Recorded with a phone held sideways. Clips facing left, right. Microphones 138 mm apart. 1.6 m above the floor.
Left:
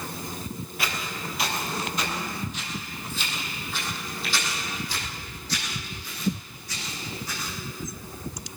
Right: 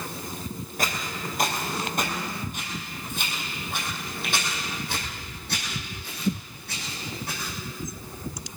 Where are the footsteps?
45° right (ahead or behind), 2.5 m; by 7.5 s 70° right (ahead or behind), 5.5 m.